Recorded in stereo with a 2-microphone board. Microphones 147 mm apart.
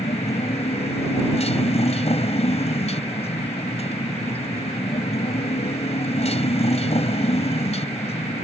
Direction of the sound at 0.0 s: 45° left (ahead or behind).